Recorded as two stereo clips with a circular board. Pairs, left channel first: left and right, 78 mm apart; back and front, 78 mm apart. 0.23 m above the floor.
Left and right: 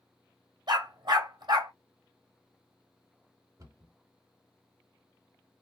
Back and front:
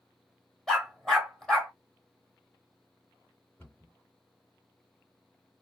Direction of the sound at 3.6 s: 115° right.